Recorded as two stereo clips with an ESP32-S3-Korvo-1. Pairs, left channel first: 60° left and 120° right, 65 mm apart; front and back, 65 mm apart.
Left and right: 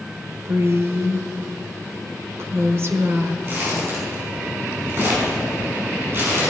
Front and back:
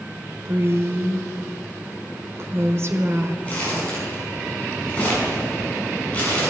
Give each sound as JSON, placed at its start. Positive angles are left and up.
{"t": 0.5, "sound": "a woman speaking", "azimuth_deg": -150, "distance_m": 1.3}
{"t": 3.5, "sound": "crumpling", "azimuth_deg": -70, "distance_m": 5.0}